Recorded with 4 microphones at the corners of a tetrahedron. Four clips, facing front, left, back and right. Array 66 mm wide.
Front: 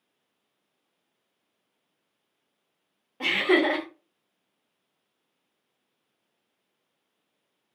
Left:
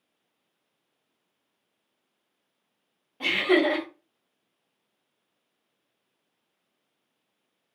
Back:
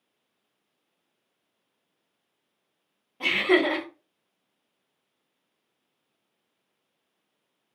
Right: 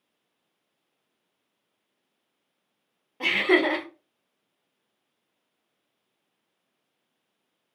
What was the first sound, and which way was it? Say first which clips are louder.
Laughter: right 1 dB, even; 35° right.